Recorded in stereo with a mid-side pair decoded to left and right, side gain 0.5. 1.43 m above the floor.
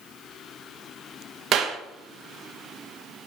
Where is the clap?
60° right, 1.6 m.